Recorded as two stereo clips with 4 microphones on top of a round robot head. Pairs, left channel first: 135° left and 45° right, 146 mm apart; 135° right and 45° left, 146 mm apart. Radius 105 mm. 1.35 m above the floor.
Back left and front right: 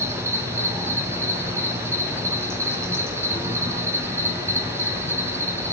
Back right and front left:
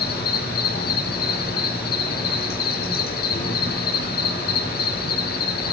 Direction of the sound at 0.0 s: 115° right.